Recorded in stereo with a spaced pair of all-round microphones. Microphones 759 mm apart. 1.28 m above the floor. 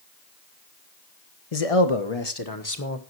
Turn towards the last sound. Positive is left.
turn(degrees=15)  # may be behind; listen again after turning